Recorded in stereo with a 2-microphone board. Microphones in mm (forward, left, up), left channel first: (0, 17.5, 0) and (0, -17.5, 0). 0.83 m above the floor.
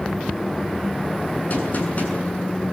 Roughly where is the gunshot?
Left.